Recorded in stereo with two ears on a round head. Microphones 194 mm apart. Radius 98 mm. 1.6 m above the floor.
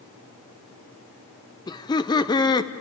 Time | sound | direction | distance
1.7 | laughter | 20° left (ahead or behind) | 0.9 m